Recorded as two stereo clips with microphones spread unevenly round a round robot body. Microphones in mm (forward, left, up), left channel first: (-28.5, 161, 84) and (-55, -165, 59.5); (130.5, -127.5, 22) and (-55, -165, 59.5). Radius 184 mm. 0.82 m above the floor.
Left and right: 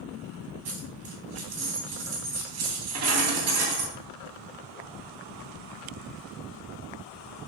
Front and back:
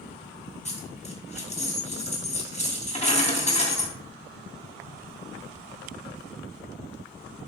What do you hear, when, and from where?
0.7 s a dropped coin: 45° right, 3 m